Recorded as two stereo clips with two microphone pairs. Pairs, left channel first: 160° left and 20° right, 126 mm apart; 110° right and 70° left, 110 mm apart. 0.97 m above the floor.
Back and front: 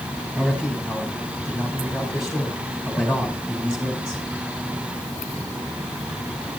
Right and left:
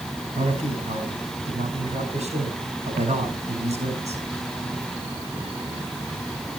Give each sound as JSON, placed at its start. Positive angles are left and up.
{"t": 0.3, "sound": "a man speaking", "azimuth_deg": 65, "distance_m": 5.0}